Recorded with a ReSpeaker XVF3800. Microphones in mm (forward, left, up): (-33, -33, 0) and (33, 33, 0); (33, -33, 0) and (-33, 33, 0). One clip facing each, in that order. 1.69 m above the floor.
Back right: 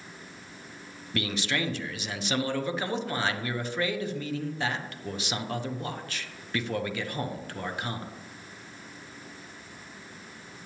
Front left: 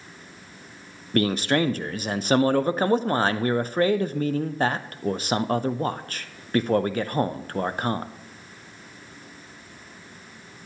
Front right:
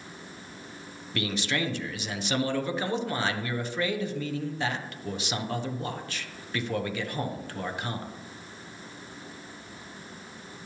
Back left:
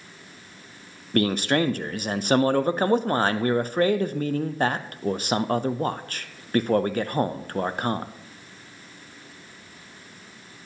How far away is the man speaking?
About 0.5 m.